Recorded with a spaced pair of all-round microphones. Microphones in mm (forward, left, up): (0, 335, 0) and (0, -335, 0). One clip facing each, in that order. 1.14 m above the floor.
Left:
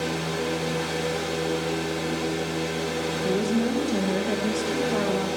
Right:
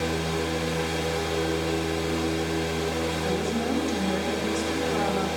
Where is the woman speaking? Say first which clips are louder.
Left 6 dB; 65° left (ahead or behind), 1.3 m.